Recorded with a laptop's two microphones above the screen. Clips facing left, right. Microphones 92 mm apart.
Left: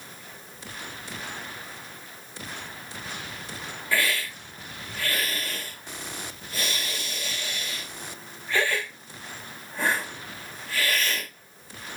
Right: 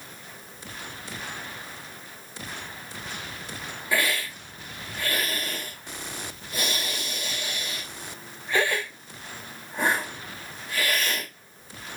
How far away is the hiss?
About 0.8 m.